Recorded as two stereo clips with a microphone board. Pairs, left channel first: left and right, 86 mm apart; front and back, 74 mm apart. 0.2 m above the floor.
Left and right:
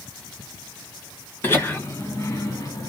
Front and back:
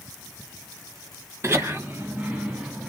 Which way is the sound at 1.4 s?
145° left.